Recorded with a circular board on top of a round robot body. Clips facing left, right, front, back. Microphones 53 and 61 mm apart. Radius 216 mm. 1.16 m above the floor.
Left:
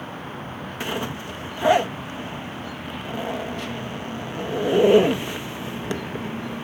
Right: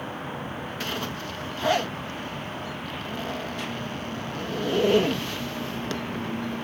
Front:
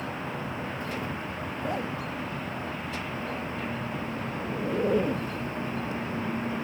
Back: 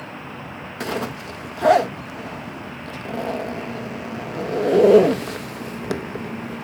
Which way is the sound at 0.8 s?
165° left.